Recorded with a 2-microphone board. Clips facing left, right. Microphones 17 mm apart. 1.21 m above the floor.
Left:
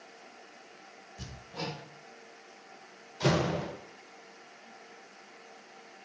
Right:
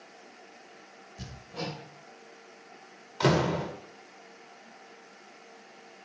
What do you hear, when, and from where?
1.2 s hammering: 15° right (ahead or behind), 1.6 m
3.2 s a door slam: 80° right, 2.0 m